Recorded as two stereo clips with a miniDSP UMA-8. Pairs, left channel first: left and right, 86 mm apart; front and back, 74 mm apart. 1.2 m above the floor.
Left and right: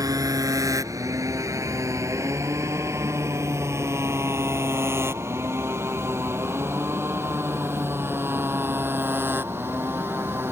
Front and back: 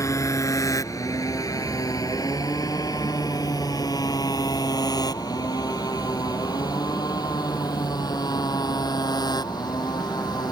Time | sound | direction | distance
0.0 | a motorcycle | 45° right | ?